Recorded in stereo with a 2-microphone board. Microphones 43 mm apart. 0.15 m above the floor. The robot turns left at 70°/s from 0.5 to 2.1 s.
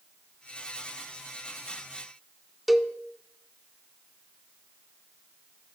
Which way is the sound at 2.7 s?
5° right (ahead or behind).